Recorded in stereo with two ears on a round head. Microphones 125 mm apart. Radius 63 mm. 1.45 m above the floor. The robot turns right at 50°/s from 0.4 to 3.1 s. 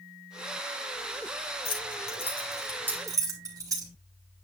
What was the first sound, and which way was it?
Keys jangling, 45° left (ahead or behind).